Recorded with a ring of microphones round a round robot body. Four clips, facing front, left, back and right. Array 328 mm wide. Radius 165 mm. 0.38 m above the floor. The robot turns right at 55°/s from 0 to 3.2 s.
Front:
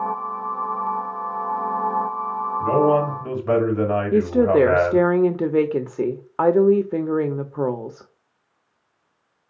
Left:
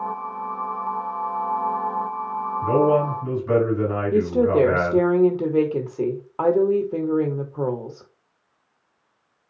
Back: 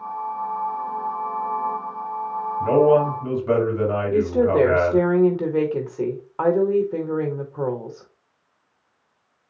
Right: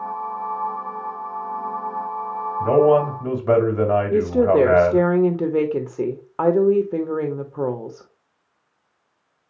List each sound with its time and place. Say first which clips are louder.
2.6 s a man speaking: right 3 dB, back 2 dB; 110° right, 2.5 m; by 5.1 s 75° right, 2.5 m
4.1 s a woman speaking: even, front 2 dB; 25° right, 1.1 m